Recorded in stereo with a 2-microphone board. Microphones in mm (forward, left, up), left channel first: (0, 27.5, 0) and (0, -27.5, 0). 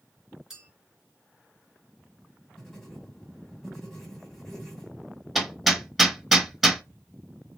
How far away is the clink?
About 1.2 m.